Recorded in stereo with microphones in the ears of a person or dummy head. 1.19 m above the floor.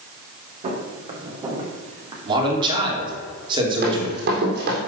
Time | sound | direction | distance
0.6 | footsteps | 35° right (ahead or behind) | 4 m
2.2 | a man speaking | 25° right (ahead or behind) | 3.5 m
3.8 | running footsteps | 50° right (ahead or behind) | 4 m